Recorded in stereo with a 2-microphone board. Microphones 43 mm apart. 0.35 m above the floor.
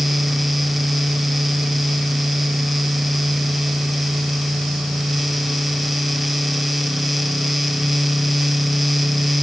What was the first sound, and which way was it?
Only background noise.